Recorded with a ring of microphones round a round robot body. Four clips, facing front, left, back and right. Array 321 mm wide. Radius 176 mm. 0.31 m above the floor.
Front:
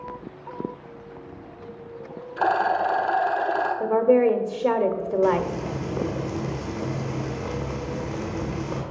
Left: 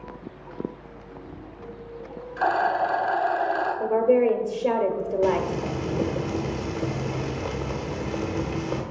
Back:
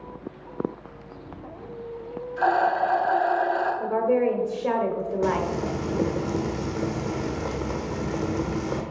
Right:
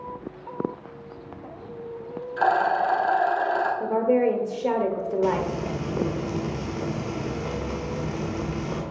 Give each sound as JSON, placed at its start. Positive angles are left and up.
{"t": 2.4, "sound": "a rattle", "azimuth_deg": -30, "distance_m": 2.5}
{"t": 3.8, "sound": "a woman speaking", "azimuth_deg": 10, "distance_m": 1.1}
{"t": 5.2, "sound": "frying", "azimuth_deg": 160, "distance_m": 1.6}